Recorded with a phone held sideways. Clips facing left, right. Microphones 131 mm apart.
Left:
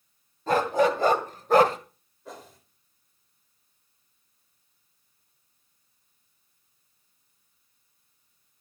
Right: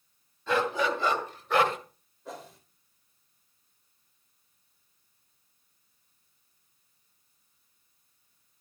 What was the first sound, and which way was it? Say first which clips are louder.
A dog barking: left 5 dB; 45° left (ahead or behind).